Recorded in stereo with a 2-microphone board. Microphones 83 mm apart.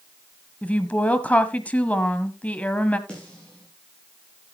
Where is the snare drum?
15° left (ahead or behind), 8.5 m.